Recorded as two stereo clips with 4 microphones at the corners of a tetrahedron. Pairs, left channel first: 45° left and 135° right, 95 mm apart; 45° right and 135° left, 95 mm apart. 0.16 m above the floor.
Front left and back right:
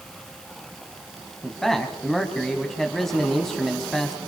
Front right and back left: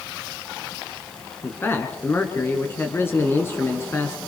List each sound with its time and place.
1.4 s a man speaking: 35° right, 1.8 m